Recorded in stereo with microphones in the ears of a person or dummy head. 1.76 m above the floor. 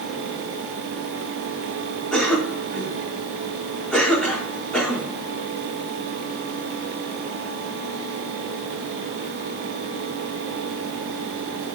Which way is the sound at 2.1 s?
10° left (ahead or behind).